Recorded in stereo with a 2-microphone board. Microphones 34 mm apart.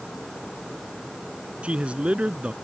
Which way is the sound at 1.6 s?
35° right (ahead or behind).